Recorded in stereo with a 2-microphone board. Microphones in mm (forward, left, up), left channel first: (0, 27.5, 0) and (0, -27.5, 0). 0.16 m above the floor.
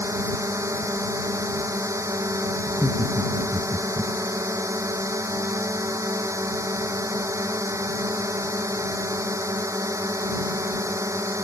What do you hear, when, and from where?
0.0 s a drone: 65° right (ahead or behind)
2.7 s laughter: 50° right (ahead or behind)